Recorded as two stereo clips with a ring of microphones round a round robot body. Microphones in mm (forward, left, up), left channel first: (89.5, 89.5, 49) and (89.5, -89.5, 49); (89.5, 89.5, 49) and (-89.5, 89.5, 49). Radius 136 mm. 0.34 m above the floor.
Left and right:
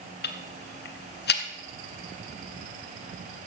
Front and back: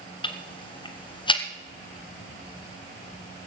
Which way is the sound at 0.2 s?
65° left.